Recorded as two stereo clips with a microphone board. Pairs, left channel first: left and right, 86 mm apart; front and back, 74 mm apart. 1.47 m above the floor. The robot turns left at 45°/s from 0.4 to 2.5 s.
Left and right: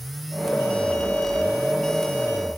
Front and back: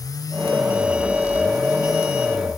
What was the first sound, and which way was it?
Only background noise.